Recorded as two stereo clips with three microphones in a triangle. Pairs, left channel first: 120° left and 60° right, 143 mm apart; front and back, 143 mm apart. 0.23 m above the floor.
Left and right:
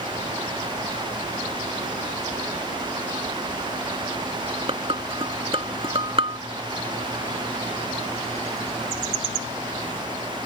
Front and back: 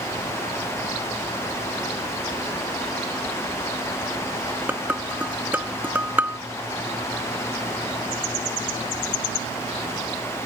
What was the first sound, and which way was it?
Dishes clattering, 105° right.